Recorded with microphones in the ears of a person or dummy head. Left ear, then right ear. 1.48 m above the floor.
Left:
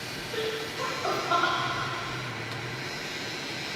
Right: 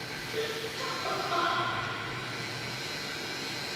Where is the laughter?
40° left (ahead or behind), 4 m; by 1.5 s 50° left (ahead or behind), 3.5 m.